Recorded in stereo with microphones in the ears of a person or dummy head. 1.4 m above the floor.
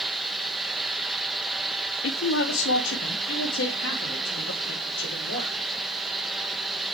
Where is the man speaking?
80° left, 0.7 m.